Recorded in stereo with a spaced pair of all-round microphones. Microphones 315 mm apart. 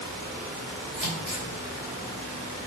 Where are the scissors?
20° left (ahead or behind), 3 m.